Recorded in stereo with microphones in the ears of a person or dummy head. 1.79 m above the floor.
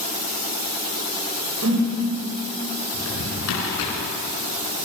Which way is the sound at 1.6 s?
80° right.